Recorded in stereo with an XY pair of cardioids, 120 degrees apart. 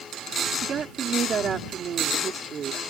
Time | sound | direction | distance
0.6 | a woman speaking | 40° right | ?